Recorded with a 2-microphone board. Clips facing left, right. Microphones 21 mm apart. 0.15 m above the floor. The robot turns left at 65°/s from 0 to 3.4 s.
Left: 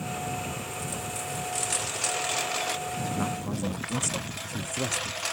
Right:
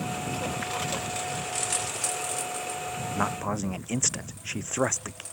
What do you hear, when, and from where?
0.0 s a lawn mower: 75° right; by 5.3 s 65° left
3.1 s a man speaking: 35° right (ahead or behind); by 5.2 s 50° right (ahead or behind)